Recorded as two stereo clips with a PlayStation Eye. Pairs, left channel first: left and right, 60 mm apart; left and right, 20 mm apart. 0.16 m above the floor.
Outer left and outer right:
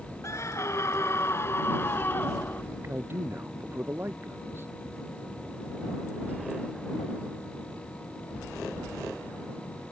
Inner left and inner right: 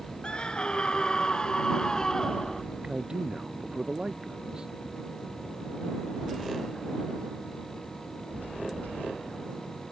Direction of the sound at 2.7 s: 40° right (ahead or behind).